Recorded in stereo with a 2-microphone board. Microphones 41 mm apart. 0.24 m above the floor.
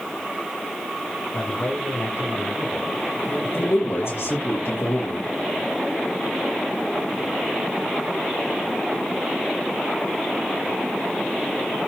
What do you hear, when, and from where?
1.3 s a man speaking: 75° left (ahead or behind), 8 m
3.5 s a man speaking: 80° left, 7.5 m